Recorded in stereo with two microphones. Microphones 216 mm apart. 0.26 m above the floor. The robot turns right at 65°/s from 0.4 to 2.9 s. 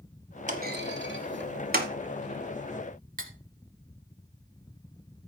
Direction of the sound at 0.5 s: 35° right (ahead or behind).